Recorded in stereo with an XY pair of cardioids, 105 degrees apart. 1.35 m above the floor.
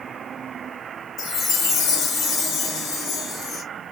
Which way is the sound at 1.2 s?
65° left.